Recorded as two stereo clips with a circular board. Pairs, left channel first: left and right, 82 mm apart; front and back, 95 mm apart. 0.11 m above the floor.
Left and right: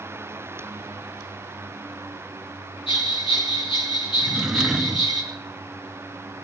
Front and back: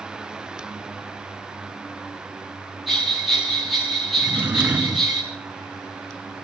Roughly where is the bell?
Left.